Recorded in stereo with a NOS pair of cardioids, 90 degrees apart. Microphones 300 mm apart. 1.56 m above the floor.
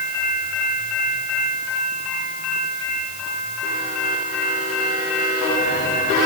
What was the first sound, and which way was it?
Only background noise.